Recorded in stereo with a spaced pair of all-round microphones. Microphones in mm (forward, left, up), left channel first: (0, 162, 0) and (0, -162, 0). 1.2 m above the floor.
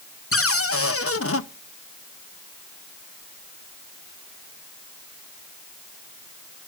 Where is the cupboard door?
45° left (ahead or behind), 0.8 m.